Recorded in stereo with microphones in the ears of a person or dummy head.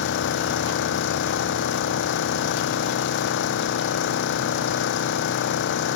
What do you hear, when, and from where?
0.0 s an engine running: 60° left (ahead or behind)